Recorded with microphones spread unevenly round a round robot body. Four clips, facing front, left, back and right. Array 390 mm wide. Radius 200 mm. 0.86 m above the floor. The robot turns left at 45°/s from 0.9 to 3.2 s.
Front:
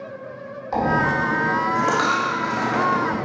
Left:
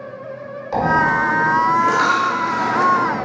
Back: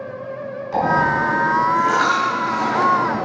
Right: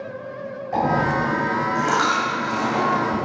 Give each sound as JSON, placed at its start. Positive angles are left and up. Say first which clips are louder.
{"t": 0.7, "sound": "a dropped coin", "louder": "left 4 dB, back 3 dB", "azimuth_deg": 55, "distance_m": 2.0}